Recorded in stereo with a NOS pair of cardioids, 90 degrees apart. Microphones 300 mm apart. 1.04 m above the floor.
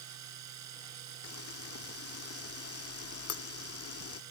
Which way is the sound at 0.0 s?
65° right.